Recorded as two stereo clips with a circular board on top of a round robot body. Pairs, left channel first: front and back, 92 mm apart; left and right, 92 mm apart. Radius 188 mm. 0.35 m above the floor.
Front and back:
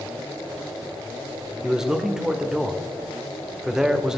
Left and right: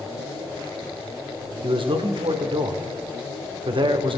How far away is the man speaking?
About 2 m.